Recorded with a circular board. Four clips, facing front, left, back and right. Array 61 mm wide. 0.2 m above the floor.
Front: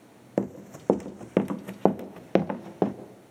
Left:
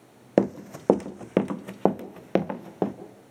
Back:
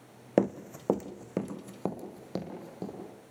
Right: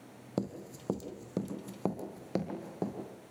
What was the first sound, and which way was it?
Running footsteps, 105° left.